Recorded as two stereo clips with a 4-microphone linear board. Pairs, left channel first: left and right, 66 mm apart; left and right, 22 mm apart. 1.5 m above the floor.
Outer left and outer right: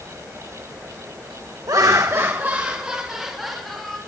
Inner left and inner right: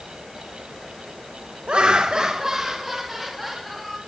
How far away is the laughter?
About 1.1 m.